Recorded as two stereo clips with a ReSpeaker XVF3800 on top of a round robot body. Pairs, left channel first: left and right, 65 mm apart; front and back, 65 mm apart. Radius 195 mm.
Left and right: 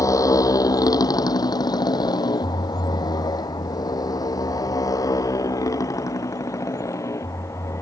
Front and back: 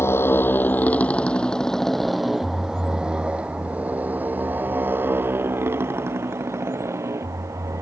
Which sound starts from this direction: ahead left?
A motorcycle, at 0.0 s.